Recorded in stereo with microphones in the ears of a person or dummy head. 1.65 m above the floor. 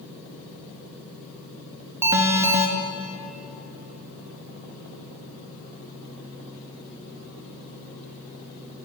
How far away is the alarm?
About 0.7 m.